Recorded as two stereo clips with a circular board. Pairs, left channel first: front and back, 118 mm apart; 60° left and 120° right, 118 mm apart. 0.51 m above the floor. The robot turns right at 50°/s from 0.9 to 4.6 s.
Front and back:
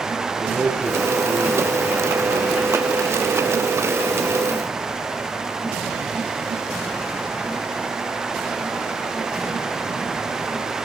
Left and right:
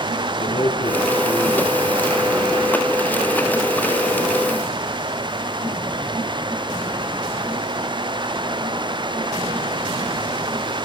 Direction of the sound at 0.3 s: 90° left.